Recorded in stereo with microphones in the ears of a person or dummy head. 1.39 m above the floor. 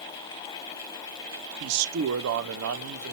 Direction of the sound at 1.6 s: 80° right.